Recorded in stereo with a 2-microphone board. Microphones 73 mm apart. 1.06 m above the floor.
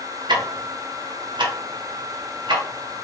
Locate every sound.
0.3 s ticking: 85° right, 0.7 m